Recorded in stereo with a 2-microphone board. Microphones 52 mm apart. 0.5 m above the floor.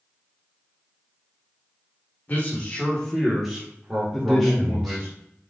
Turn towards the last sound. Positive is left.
turn(degrees=0)  # may be behind; listen again after turning